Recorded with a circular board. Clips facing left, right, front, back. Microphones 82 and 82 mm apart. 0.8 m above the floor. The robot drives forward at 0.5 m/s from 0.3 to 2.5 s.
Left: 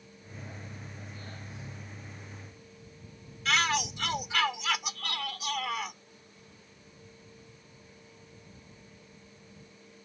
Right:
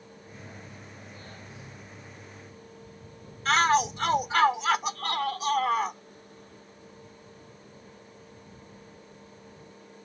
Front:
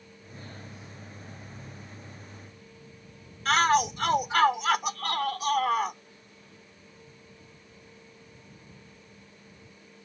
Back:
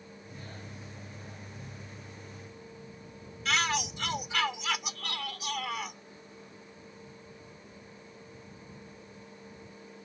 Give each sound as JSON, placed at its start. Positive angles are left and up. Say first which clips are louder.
{"t": 3.5, "sound": "a shout", "louder": "right 7 dB, front 8 dB", "azimuth_deg": -40}